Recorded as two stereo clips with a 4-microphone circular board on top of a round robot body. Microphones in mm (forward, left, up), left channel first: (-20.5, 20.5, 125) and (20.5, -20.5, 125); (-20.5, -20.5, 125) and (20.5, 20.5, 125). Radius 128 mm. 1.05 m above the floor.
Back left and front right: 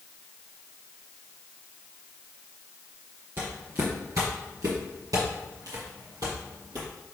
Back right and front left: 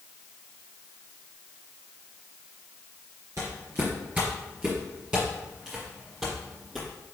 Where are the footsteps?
Straight ahead, 1.1 m; by 6.9 s 50° right, 2.5 m.